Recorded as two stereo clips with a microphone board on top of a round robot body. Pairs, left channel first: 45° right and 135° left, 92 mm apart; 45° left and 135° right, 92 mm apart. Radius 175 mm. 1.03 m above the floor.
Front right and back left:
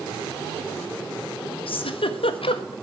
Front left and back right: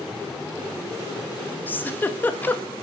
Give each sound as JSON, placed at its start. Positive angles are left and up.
{"t": 1.7, "sound": "a giggle", "azimuth_deg": -25, "distance_m": 1.6}